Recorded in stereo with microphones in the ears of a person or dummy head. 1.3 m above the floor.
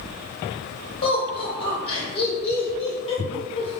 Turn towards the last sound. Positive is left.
turn(degrees=35)  # may be behind; listen again after turning